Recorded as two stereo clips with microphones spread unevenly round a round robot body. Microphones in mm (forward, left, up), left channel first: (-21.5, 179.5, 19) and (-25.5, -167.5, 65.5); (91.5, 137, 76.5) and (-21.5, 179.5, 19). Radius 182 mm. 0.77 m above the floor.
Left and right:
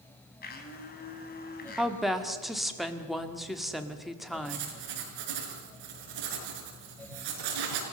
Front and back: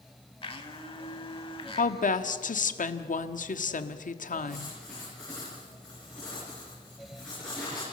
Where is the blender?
25° left, 3 m.